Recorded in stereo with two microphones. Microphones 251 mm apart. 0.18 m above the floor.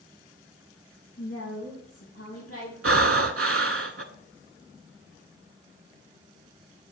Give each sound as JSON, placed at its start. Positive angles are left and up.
{"t": 1.2, "sound": "a woman speaking", "side_deg": 60, "distance_m": 2.5}
{"t": 2.8, "sound": "breathing", "side_deg": -65, "distance_m": 0.5}